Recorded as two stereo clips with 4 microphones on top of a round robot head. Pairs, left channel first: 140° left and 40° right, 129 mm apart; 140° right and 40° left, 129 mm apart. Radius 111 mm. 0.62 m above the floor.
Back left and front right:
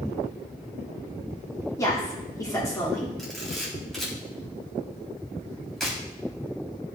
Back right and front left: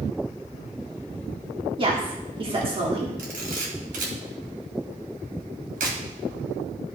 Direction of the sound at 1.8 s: 80° left.